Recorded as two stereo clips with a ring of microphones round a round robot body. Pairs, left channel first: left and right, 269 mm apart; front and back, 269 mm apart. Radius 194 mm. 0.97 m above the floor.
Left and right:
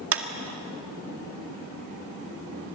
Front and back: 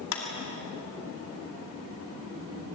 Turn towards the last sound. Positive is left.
turn(degrees=-55)